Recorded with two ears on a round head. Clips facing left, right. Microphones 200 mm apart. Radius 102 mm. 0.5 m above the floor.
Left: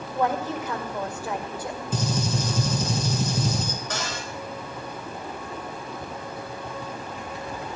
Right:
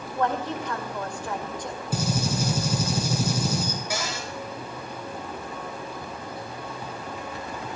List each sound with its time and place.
0.1 s a woman speaking: 5° left (ahead or behind), 2 m
1.9 s a gunshot: 10° right (ahead or behind), 3.5 m
3.9 s a cupboard door: 10° right (ahead or behind), 4 m